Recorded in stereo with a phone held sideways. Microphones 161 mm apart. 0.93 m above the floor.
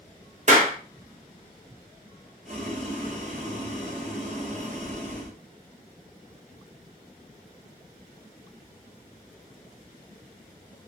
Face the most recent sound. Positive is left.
turn(degrees=-45)  # may be behind; listen again after turning